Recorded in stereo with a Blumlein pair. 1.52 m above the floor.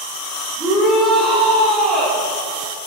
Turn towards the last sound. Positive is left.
turn(degrees=-10)